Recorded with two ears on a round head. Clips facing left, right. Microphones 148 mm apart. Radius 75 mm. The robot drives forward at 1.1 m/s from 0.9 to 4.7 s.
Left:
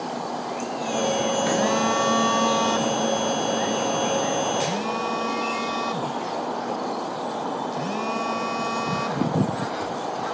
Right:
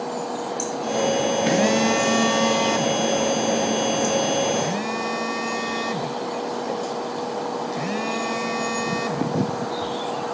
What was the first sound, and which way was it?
A phone buzzing, 30° right (ahead or behind).